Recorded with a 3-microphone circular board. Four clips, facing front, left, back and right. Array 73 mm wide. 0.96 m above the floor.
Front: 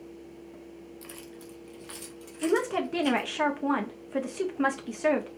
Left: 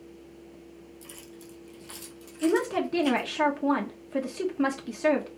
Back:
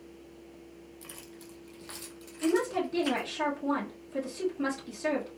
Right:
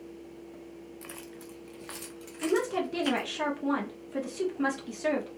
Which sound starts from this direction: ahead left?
A woman speaking, at 2.4 s.